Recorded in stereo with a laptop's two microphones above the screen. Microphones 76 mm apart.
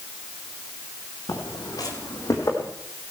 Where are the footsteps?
65° left (ahead or behind), 3 m; by 2.7 s 40° left (ahead or behind), 2.5 m.